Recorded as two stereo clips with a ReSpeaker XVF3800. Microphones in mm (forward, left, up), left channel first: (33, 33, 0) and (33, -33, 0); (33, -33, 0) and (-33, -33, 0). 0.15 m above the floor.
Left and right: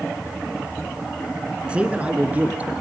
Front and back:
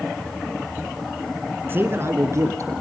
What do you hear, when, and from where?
1.7 s a man speaking: 150° right, 1.8 m; by 2.7 s 155° right, 3 m